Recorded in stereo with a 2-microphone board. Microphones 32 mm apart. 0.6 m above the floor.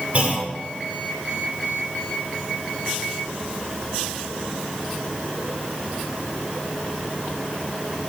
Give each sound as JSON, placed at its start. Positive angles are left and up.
{"t": 0.1, "sound": "a clunk", "side_deg": -40, "distance_m": 1.8}